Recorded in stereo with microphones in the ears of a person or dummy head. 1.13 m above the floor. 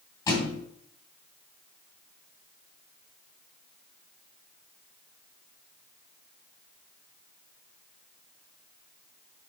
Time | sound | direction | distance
0.3 | a thud | 20° left (ahead or behind) | 2.5 m